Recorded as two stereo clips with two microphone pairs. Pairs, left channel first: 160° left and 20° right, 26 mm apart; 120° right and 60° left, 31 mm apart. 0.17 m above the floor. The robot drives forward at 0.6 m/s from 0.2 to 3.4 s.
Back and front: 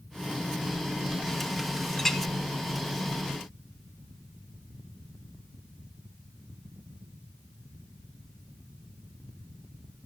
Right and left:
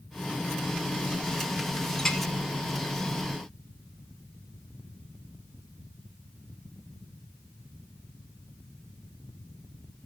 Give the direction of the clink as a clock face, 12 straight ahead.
5 o'clock.